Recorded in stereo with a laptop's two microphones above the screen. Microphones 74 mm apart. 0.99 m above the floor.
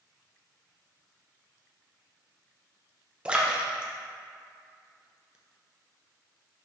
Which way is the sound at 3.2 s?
15° right (ahead or behind).